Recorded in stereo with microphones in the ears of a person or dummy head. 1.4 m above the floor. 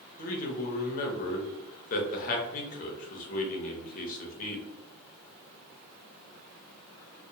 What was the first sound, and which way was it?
A man speaking, 45° left (ahead or behind).